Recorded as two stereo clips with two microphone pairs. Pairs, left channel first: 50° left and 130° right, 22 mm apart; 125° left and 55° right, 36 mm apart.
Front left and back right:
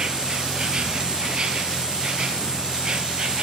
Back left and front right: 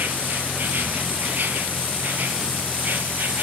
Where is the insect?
80° right, 1.8 m.